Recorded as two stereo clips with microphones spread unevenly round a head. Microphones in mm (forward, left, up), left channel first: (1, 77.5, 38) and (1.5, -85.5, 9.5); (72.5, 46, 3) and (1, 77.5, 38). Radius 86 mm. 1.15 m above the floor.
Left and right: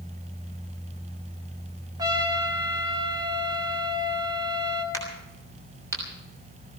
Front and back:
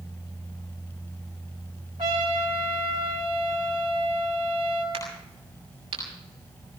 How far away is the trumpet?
About 3.5 m.